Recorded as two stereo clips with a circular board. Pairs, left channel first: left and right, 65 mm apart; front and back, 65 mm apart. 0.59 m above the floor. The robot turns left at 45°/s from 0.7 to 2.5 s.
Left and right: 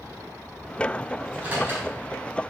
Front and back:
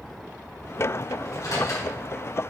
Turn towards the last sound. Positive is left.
turn(degrees=-70)